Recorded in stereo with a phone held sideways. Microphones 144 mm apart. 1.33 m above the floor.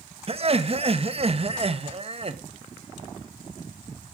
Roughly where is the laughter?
Right.